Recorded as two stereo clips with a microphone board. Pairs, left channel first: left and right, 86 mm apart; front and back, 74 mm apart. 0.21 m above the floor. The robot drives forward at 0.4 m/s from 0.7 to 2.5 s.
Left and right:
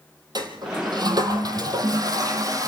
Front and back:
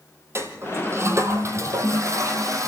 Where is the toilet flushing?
125° right, 3 m; by 2.7 s 135° right, 3.5 m.